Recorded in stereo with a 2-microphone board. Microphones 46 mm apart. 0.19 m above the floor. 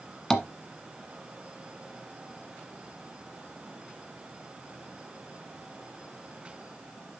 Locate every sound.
0.3 s tapping: 15° left (ahead or behind), 1.3 m